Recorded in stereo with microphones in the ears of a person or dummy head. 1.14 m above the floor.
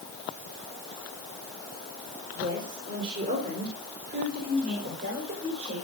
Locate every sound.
2.4 s a woman speaking: 40° right (ahead or behind), 3.5 m; by 5.8 s 55° right (ahead or behind), 5.5 m